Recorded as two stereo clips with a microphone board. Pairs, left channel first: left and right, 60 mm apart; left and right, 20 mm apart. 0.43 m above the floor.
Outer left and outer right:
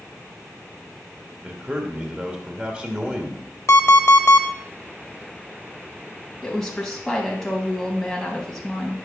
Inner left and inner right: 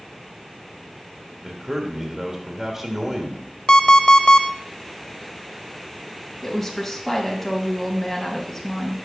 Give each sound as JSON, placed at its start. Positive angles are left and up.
{"t": 1.4, "sound": "a man speaking", "side_deg": -20, "distance_m": 1.4}
{"t": 3.7, "sound": "an alarm clock", "side_deg": 50, "distance_m": 0.7}
{"t": 6.4, "sound": "a woman speaking", "side_deg": 5, "distance_m": 2.5}